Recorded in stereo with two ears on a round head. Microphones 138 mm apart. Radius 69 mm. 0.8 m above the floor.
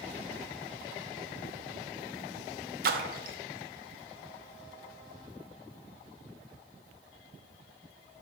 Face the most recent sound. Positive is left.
turn(degrees=-65)  # may be behind; listen again after turning